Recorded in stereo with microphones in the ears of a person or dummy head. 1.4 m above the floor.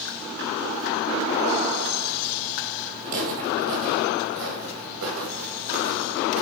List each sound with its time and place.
3.0 s footsteps: 50° right (ahead or behind), 2 m; by 6.4 s 60° right (ahead or behind), 3.5 m